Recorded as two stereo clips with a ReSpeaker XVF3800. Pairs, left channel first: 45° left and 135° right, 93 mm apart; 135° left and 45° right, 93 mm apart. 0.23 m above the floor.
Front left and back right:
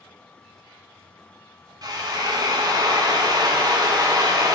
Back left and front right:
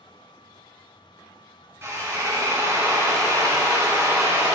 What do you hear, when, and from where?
1.8 s a drill: 100° right, 1.7 m